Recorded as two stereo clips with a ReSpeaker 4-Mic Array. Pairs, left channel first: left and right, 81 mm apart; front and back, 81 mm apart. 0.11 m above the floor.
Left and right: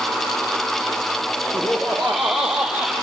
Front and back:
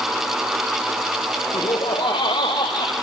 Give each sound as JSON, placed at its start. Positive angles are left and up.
{"t": 1.5, "sound": "laughter", "azimuth_deg": 10, "distance_m": 4.5}